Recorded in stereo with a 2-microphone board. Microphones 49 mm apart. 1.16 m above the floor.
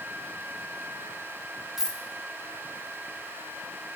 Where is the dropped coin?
10° right (ahead or behind), 0.9 m.